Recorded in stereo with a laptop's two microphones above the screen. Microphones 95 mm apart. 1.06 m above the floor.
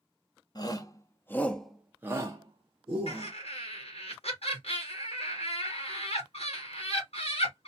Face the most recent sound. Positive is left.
turn(degrees=80)